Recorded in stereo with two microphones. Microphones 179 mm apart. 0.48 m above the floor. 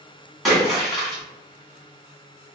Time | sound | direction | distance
0.5 | a splash | centre (ahead or behind) | 2.0 m